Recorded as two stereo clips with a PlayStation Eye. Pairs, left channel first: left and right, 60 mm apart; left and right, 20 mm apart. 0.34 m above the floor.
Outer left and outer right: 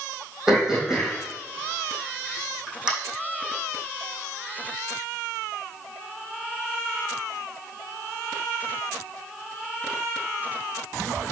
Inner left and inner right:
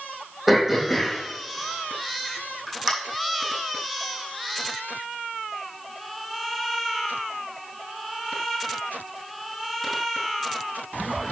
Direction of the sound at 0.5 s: 10° right (ahead or behind).